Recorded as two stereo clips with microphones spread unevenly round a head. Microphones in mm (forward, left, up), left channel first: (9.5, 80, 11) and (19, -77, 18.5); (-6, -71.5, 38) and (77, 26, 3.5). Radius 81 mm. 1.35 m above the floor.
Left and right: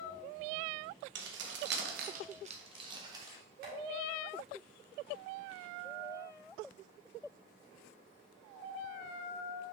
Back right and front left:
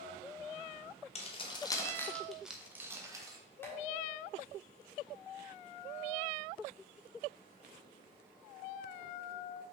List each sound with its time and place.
1.1 s keys jangling: 100° right, 1.0 m; by 3.4 s 15° right, 1.4 m
3.6 s tapping: 60° right, 3 m